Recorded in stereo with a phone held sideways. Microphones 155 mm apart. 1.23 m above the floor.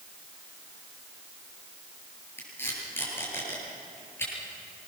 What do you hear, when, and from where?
2.4 s tape being pulled: 15° left (ahead or behind), 8 m